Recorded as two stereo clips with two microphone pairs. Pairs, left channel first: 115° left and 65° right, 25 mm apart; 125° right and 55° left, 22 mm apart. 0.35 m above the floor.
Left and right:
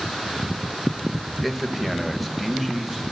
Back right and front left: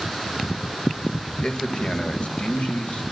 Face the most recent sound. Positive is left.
turn(degrees=-140)